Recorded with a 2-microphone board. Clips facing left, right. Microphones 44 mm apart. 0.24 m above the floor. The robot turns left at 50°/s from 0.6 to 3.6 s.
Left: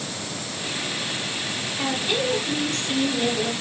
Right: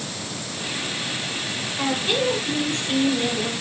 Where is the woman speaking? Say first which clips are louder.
Right 2 dB; 100° right, 2.5 m; by 3.5 s 175° left, 2.5 m.